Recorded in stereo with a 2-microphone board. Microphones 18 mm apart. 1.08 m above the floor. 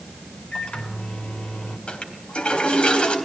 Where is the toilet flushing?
80° left, 3.5 m.